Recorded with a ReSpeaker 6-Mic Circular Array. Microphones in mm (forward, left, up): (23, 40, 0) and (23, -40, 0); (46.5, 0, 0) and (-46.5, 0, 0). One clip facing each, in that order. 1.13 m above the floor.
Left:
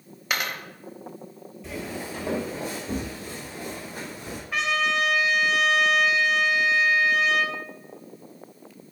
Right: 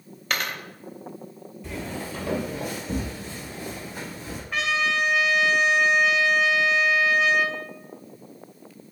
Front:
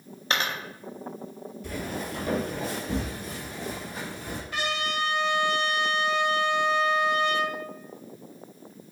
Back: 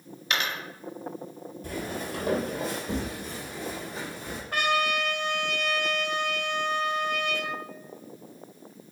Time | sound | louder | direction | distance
0.3 | a dropped coin | even, front 2 dB | 15° left | 0.7 m
1.6 | footsteps | even, even | straight behind | 1.5 m
4.5 | a trumpet | even, back 4 dB | straight behind | 0.5 m